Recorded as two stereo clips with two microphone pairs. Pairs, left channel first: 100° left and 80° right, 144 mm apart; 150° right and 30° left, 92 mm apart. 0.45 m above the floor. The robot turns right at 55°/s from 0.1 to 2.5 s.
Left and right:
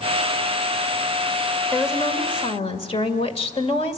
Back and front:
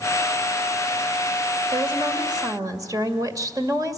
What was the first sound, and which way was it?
A woman speaking, 20° left.